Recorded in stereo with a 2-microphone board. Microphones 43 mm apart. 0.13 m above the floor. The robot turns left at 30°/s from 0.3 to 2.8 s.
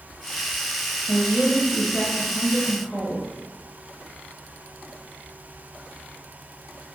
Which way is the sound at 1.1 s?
10° left (ahead or behind).